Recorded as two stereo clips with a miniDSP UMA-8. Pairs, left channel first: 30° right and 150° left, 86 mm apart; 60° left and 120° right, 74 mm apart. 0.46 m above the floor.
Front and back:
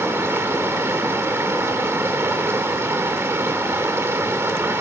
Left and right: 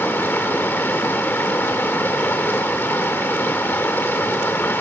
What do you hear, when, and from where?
0.0 s running water: 110° left, 1.1 m